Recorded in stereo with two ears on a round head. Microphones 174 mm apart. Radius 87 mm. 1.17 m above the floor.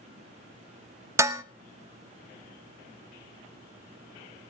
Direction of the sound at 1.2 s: 15° right (ahead or behind).